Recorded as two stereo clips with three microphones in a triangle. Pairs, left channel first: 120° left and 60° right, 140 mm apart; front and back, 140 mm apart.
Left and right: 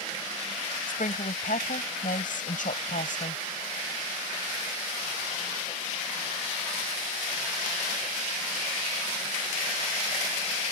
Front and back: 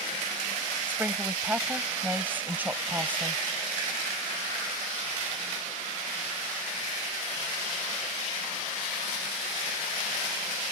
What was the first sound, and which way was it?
A woman speaking, 100° left.